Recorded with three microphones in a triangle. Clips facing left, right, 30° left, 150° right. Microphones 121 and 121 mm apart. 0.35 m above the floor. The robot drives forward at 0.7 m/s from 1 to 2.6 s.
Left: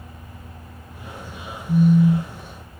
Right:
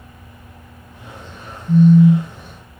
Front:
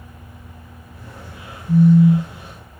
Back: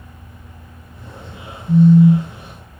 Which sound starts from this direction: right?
A phone buzzing, at 1.7 s.